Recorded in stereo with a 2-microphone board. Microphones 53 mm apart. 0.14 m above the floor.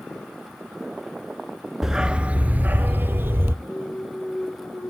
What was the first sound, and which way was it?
A dog barking, 5° right (ahead or behind).